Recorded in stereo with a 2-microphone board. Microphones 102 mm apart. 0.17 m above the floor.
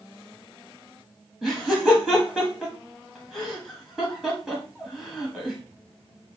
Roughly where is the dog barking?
I don't hear a dog barking.